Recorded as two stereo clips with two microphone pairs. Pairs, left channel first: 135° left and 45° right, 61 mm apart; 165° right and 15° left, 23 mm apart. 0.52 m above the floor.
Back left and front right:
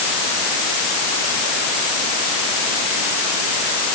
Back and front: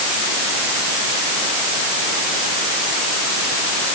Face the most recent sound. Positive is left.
No sound to turn to.